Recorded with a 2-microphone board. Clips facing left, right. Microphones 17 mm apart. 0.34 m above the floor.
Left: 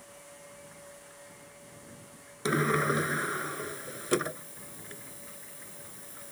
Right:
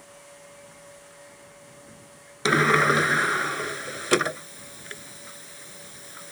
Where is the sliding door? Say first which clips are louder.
Right 8 dB; 45° right (ahead or behind).